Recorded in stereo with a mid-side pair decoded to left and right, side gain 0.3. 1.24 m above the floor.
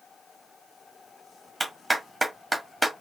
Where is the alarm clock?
No alarm clock in this recording.